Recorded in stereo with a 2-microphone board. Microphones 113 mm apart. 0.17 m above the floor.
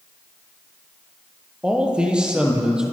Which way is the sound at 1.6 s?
10° right (ahead or behind).